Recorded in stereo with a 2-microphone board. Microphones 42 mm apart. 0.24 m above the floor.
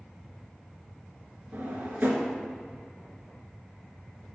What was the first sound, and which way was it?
A drawer, 45° right (ahead or behind).